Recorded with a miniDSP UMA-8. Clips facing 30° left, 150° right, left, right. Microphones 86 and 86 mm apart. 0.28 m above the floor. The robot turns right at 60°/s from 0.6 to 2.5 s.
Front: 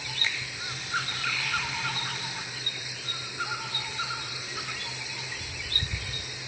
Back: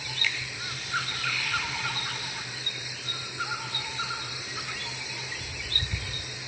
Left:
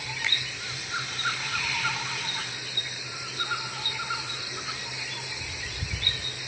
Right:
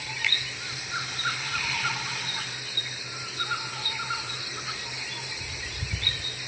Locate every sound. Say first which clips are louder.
0.2 s a finger snap: back 1 dB, right 1 dB; 60° left, 1.5 m